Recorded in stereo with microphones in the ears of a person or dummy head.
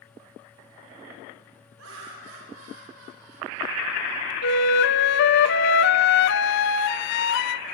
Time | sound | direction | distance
1.8 | laughter | 70° right (ahead or behind) | 4.5 m
4.4 | a flute | 65° left (ahead or behind) | 0.6 m